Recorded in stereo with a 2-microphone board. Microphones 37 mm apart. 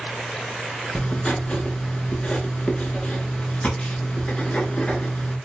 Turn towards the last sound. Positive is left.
turn(degrees=30)  # may be behind; listen again after turning